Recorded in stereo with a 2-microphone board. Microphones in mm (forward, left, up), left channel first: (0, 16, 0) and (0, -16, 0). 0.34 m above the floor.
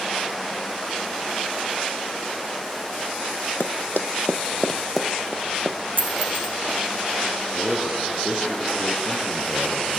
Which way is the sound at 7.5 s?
Centre (ahead or behind).